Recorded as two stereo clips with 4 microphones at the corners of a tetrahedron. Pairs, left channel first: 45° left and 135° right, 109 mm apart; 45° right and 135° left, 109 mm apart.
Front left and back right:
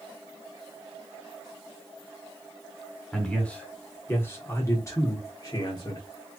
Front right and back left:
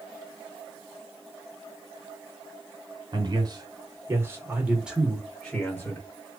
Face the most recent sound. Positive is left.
turn(degrees=15)